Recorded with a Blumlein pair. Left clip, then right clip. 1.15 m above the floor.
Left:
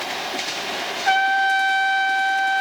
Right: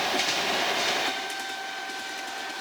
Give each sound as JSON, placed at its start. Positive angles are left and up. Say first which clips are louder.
{"t": 1.1, "sound": "a trumpet", "louder": "left 14 dB", "azimuth_deg": 40}